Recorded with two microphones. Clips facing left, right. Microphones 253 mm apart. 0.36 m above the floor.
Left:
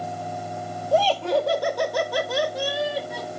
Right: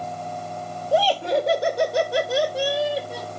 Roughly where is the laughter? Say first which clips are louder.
Even; centre.